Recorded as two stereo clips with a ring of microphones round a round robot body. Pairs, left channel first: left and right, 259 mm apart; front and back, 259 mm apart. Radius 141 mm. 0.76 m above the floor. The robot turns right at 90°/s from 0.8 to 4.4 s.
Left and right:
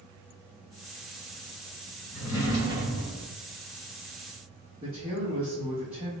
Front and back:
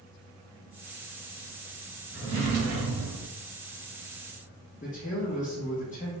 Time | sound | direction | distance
2.1 | a drawer | 95° left | 1.9 m
4.8 | a man speaking | 35° right | 0.9 m